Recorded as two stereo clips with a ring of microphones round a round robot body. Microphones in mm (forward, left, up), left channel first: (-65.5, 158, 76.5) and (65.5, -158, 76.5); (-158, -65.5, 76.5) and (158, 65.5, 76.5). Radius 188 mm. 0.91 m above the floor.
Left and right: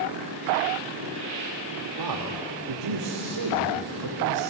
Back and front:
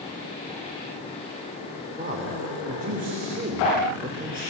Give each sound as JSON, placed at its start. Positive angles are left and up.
{"t": 2.0, "sound": "a man speaking", "azimuth_deg": -45, "distance_m": 2.5}